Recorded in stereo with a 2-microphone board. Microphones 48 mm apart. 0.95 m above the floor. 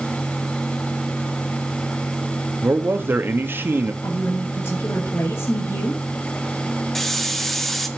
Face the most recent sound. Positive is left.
turn(degrees=5)  # may be behind; listen again after turning